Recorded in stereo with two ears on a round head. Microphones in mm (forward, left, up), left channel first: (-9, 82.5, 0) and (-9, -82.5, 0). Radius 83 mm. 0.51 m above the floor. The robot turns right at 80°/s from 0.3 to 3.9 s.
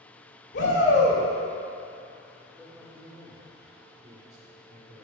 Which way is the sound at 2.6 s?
175° right.